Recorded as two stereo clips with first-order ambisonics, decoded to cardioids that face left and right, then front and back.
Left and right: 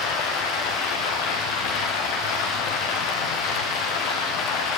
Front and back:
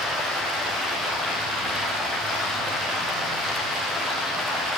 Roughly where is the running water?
Left.